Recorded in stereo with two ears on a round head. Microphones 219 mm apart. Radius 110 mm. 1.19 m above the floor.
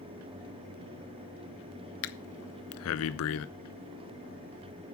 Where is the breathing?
60° left (ahead or behind), 0.6 m.